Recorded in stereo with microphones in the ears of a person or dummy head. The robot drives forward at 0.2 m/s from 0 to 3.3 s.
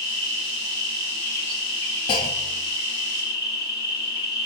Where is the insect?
35° right (ahead or behind), 1.6 m; by 4.5 s 25° right (ahead or behind), 2 m.